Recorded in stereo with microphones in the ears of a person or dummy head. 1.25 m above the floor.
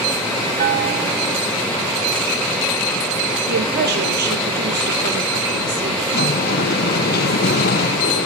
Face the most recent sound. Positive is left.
turn(degrees=50)  # may be behind; listen again after turning